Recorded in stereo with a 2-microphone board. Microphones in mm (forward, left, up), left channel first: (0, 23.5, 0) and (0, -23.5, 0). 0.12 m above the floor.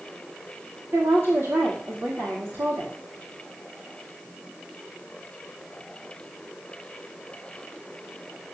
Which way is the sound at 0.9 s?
65° right (ahead or behind).